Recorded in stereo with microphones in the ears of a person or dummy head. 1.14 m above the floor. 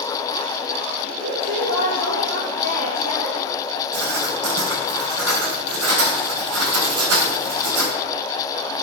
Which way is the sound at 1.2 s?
60° right (ahead or behind).